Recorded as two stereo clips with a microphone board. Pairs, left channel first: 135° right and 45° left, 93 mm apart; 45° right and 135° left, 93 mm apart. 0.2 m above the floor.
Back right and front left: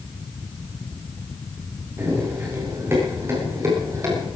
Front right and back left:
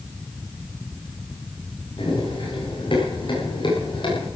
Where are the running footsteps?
20° right, 10 m; by 4.3 s 10° right, 9.5 m.